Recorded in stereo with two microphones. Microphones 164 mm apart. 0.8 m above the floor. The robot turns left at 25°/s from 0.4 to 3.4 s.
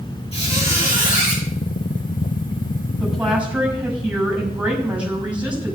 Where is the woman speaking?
Centre (ahead or behind), 6 m; by 5.8 s 10° right (ahead or behind), 6 m.